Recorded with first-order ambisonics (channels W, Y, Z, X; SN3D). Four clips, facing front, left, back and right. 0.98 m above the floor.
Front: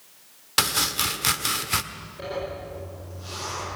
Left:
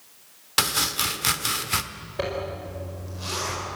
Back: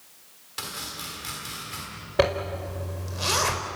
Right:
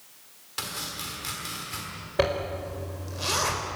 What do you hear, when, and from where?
0.6 s chopping: 40° left, 1.4 m
2.2 s a zipper: 160° right, 4.5 m